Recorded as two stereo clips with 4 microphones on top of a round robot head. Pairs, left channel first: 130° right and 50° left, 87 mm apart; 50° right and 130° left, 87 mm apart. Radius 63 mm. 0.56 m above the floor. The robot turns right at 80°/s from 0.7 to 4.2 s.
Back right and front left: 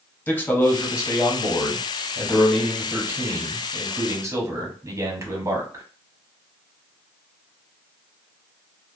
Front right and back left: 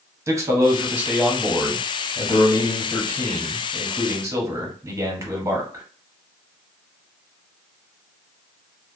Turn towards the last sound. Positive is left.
turn(degrees=90)